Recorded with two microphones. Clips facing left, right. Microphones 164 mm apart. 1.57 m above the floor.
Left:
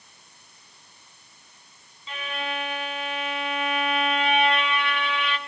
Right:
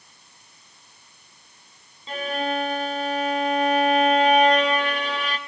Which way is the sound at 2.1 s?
40° right (ahead or behind).